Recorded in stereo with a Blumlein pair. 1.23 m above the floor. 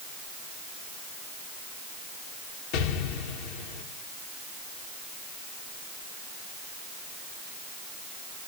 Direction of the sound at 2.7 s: 45° left.